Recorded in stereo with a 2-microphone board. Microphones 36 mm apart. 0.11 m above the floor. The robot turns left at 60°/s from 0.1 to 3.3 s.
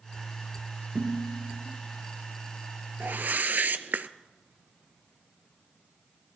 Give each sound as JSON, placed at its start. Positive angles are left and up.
{"t": 0.9, "sound": "dishes clattering", "azimuth_deg": -115, "distance_m": 5.0}
{"t": 3.0, "sound": "a whoosh", "side_deg": -55, "distance_m": 0.6}